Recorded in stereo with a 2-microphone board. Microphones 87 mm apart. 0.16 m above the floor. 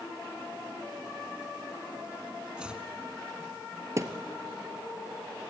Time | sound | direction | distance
2.6 | chopping | 10° right (ahead or behind) | 1.0 m
4.0 | a thud | 35° right (ahead or behind) | 1.3 m